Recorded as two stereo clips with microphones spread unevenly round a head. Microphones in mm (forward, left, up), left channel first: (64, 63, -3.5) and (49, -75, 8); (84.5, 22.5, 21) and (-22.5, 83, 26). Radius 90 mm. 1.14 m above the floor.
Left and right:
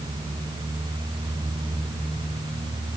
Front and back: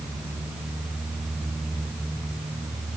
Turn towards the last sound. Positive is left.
No sound to turn to.